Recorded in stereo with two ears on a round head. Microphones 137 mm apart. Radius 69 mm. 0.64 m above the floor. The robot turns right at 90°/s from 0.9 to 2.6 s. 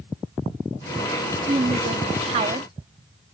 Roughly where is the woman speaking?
Behind right.